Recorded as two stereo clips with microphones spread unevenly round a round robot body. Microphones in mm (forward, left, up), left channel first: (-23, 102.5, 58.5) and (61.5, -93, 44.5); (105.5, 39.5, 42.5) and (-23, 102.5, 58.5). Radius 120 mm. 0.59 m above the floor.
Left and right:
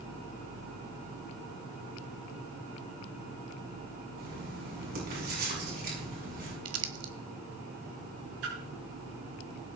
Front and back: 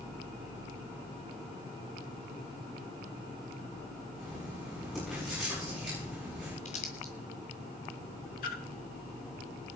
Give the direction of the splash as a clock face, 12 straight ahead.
2 o'clock.